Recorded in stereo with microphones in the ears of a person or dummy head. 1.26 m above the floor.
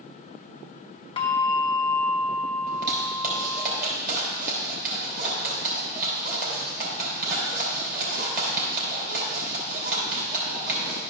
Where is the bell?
20° left (ahead or behind), 0.6 m.